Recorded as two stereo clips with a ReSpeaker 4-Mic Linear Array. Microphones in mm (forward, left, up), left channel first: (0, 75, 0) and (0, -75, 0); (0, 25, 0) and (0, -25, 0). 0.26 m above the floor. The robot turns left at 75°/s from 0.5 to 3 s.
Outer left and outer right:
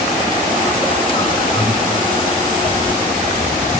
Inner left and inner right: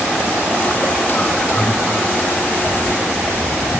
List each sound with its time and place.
1.5 s breathing: 15° right (ahead or behind), 6.5 m; by 1.8 s 5° left (ahead or behind), 6.5 m